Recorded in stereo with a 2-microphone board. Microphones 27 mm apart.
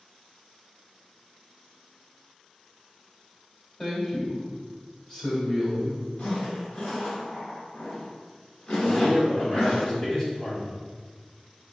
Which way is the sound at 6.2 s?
45° left (ahead or behind).